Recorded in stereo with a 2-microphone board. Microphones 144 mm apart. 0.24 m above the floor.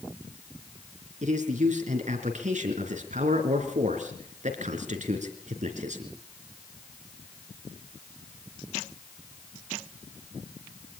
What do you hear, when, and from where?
1.2 s a man speaking: 60° right (ahead or behind), 3.5 m